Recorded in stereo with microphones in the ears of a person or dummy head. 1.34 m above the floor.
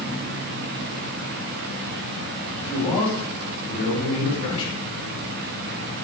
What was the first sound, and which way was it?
A man speaking, 30° left (ahead or behind).